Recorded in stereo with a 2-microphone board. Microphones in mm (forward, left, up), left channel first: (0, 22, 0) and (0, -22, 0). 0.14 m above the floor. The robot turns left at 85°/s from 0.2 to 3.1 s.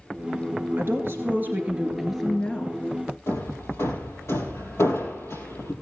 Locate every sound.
0.8 s a woman speaking: 65° right, 1.9 m; by 2.8 s 125° left, 1.9 m
3.3 s hammering: 70° left (ahead or behind), 4 m